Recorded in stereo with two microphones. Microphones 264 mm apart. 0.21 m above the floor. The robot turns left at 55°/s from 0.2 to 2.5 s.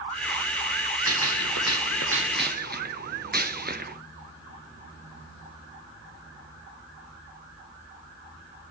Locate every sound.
1.1 s a gunshot: 65° right, 0.9 m; by 4.0 s 140° right, 0.9 m